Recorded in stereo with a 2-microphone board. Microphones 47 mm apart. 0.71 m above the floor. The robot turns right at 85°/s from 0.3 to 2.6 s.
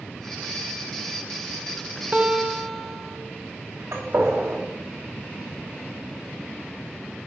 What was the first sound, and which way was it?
A guitar, 35° right.